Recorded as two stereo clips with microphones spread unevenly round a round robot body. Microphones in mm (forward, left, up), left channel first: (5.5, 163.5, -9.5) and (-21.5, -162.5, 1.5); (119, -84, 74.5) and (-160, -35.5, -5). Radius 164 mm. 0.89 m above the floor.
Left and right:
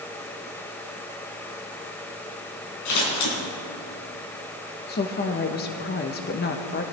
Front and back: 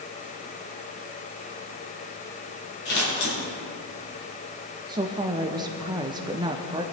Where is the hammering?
No hammering in this recording.